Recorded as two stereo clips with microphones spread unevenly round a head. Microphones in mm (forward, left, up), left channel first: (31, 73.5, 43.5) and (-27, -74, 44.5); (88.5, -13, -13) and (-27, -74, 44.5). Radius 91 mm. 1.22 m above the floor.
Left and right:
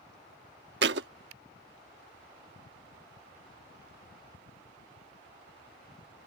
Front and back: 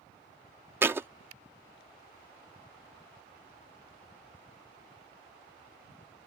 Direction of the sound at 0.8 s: 100° right.